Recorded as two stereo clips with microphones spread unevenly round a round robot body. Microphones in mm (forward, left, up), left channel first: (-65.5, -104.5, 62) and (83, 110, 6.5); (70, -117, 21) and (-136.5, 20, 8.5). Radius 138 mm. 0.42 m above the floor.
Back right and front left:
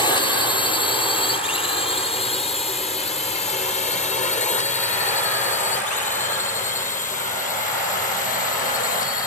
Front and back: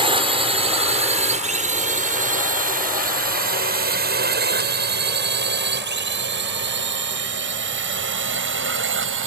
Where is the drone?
160° left; by 9.3 s 170° left.